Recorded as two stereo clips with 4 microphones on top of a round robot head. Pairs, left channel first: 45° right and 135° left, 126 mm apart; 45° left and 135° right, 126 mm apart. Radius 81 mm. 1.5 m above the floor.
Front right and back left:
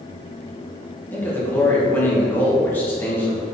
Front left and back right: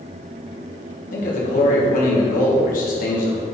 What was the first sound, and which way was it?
A man speaking, 30° left.